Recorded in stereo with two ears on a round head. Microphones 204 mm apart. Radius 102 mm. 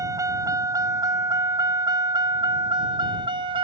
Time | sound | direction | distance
0.0 | a vehicle | 15° right (ahead or behind) | ?